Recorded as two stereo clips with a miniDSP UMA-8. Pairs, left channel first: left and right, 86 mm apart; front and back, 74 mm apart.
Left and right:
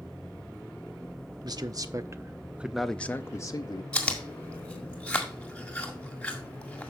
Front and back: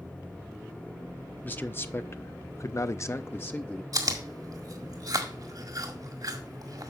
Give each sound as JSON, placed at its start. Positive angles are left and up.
{"t": 1.4, "sound": "a man speaking", "azimuth_deg": -60, "distance_m": 1.0}
{"t": 3.9, "sound": "chewing", "azimuth_deg": 165, "distance_m": 1.9}